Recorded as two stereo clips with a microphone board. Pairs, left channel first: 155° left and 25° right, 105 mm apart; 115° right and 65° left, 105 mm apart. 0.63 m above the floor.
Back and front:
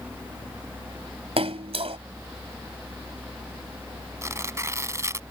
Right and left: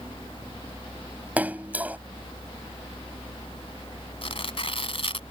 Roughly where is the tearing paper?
Right.